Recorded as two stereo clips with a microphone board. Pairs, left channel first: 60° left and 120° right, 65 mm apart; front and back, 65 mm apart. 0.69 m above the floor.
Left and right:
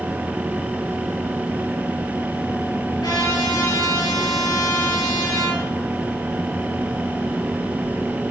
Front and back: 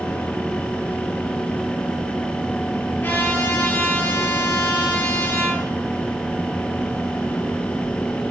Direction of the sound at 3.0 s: 60° left.